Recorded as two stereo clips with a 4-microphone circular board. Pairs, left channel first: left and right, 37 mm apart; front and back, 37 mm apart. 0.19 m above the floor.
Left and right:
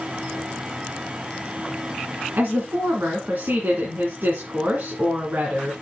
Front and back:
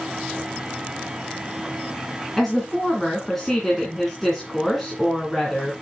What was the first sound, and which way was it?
A woman speaking, 80° right.